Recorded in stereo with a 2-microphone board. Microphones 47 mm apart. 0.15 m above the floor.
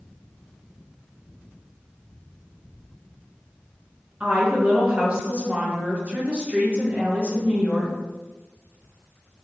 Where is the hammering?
No hammering in this recording.